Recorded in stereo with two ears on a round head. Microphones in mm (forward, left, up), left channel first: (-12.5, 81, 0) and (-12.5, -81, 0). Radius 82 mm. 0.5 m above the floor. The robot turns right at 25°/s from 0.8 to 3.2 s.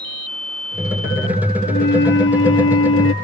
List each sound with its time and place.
1.7 s a flute: 55° left; by 3.1 s 90° left